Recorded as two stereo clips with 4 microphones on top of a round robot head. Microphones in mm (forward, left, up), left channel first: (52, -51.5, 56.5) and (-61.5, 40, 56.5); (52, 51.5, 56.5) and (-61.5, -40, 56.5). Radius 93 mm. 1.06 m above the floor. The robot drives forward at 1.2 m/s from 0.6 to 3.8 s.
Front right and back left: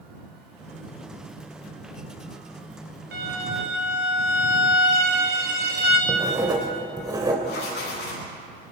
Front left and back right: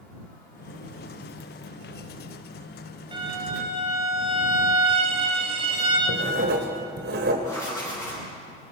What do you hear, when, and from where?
3.1 s a violin: 160° left, 3.5 m; by 6.0 s 165° left, 4.5 m
6.1 s writing: 155° right, 2.5 m
7.4 s writing: 35° right, 10 m